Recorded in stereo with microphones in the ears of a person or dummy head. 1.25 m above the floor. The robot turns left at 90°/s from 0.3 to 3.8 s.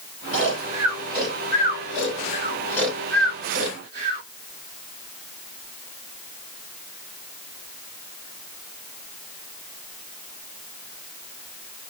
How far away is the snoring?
About 2 m.